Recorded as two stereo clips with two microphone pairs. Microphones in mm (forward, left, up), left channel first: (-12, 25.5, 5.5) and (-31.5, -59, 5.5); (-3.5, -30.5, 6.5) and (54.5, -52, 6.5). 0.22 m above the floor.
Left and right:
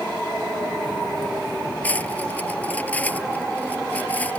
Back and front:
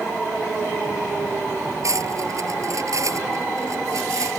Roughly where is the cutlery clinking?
Ahead.